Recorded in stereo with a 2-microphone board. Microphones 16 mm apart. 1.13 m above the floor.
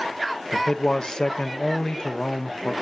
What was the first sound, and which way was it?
A man speaking, 50° left (ahead or behind).